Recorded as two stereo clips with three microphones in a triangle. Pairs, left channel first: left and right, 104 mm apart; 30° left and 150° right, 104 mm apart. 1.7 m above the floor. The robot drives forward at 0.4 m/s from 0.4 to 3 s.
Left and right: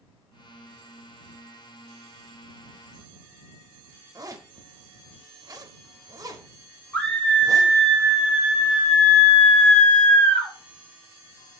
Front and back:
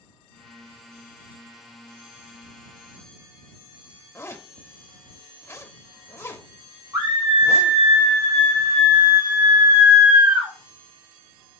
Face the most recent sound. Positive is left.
turn(degrees=170)